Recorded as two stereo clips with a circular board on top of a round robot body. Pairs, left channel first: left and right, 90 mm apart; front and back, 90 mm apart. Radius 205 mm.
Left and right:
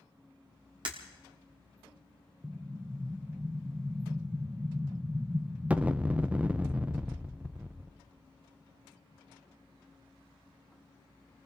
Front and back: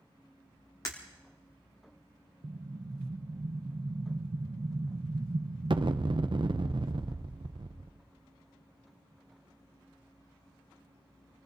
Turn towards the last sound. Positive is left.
turn(degrees=-165)